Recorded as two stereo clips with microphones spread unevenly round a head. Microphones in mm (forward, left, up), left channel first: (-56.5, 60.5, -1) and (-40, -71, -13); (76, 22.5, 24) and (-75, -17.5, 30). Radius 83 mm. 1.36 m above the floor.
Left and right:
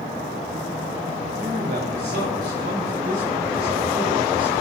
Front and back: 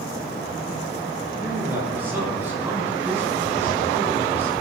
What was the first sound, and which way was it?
A man speaking, 90° right.